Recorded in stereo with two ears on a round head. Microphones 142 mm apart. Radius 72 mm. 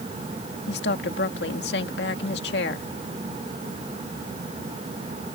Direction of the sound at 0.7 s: 75° left (ahead or behind).